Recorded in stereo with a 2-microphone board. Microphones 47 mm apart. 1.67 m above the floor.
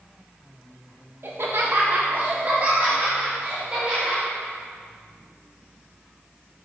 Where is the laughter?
60° right (ahead or behind), 1.4 m; by 4.2 s 30° right (ahead or behind), 3 m.